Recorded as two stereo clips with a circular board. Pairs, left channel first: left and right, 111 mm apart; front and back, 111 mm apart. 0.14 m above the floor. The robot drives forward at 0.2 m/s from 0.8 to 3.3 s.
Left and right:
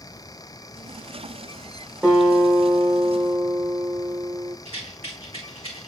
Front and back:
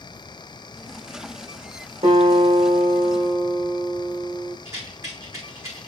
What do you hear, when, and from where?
2.0 s a guitar: 165° right, 4.5 m
4.7 s a rattle: 115° right, 3 m